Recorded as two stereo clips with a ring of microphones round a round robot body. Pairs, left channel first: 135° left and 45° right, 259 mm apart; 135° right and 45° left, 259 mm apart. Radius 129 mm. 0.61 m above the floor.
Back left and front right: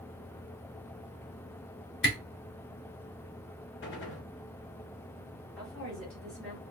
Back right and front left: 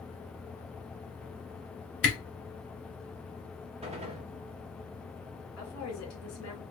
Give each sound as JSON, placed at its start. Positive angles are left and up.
{"t": 2.0, "sound": "a camera shutter", "azimuth_deg": 180, "distance_m": 2.5}
{"t": 3.8, "sound": "a gunshot", "azimuth_deg": 105, "distance_m": 1.1}
{"t": 5.6, "sound": "a woman speaking", "azimuth_deg": -140, "distance_m": 2.5}